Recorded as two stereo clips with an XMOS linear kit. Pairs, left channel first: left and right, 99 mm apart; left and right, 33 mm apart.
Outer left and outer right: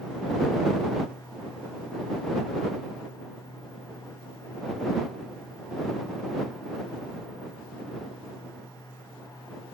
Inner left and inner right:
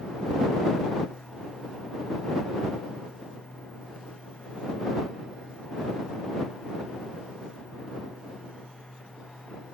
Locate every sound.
Only background noise.